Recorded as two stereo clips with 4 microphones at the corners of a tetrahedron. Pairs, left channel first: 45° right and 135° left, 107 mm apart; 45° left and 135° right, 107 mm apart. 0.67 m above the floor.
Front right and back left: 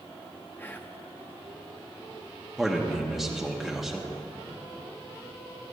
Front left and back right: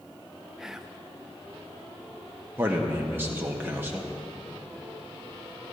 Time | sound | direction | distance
0.6 | whispering | 55° right | 0.5 m
2.6 | a man speaking | 140° right | 0.9 m